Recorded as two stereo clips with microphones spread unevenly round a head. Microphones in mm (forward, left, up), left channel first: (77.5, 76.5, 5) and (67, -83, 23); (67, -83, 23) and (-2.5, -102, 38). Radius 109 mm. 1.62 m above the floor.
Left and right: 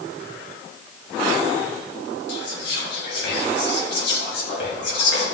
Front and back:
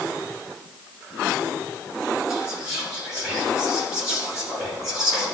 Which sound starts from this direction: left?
Whispering, at 2.3 s.